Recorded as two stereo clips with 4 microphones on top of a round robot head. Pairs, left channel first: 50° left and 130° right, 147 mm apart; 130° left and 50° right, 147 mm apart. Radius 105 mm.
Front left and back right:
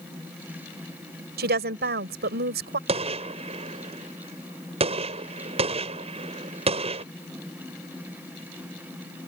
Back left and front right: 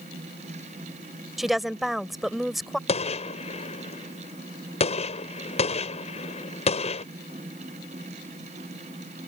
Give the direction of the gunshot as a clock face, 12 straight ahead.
6 o'clock.